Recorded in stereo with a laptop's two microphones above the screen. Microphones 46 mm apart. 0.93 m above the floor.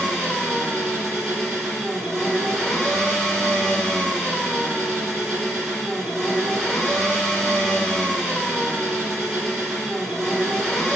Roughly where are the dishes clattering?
No dishes clattering in this recording.